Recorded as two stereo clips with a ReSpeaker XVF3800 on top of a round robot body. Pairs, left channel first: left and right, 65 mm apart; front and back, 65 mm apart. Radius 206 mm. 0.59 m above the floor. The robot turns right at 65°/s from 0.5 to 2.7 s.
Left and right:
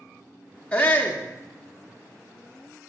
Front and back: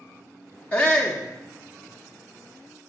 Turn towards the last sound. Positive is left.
turn(degrees=170)